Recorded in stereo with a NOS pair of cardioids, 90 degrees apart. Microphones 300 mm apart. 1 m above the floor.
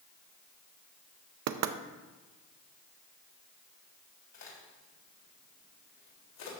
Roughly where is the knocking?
Ahead right.